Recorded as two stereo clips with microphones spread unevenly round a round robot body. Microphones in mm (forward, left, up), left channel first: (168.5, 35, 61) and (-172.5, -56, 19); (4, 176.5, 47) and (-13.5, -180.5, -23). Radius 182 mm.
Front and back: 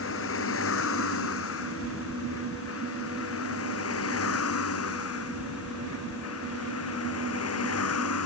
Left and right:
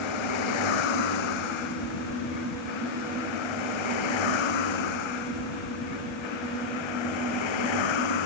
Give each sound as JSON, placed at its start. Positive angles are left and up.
{"t": 0.0, "sound": "a vehicle", "azimuth_deg": 75}